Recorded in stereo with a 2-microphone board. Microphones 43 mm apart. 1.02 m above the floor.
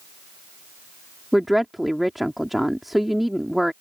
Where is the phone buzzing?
No phone buzzing in this recording.